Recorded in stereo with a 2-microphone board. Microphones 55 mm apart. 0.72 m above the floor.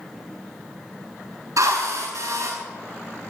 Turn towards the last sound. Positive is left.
turn(degrees=-75)  # may be behind; listen again after turning